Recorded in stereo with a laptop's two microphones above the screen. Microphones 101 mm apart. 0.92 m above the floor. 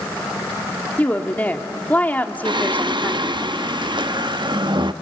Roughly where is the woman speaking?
Centre.